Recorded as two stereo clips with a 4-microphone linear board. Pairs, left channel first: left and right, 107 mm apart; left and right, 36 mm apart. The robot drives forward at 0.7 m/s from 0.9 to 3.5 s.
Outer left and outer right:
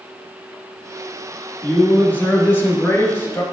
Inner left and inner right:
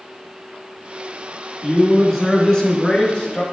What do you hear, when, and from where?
1.6 s a man speaking: 15° left (ahead or behind), 2.5 m; by 3.4 s 25° left (ahead or behind), 1.7 m